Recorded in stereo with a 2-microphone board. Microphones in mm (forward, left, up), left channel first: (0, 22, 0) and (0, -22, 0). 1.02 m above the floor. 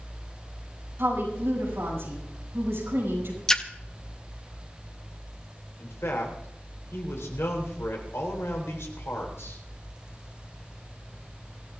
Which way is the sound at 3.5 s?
15° left (ahead or behind).